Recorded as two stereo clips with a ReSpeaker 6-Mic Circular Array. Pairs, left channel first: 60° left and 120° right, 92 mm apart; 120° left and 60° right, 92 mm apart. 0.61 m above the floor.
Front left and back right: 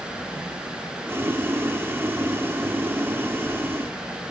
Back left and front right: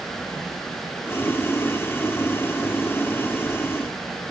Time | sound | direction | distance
1.1 | boiling | straight behind | 1.2 m